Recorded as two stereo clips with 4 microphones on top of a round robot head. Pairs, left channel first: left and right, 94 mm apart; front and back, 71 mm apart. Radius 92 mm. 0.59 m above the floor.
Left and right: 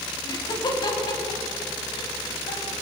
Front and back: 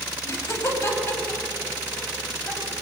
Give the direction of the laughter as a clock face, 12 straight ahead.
10 o'clock.